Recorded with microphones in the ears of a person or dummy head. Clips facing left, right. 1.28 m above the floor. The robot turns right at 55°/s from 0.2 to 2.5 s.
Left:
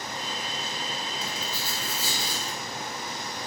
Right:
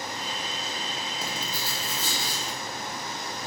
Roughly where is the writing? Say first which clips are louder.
Right 1 dB; ahead right.